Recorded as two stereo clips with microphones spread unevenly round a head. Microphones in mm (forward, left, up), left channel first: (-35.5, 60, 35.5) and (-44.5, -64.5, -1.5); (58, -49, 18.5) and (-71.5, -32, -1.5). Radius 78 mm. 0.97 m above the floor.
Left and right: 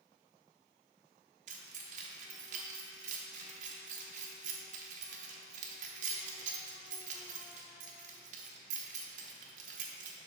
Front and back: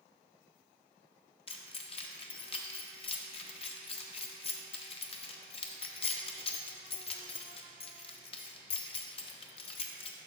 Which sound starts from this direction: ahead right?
Keys jangling, at 1.5 s.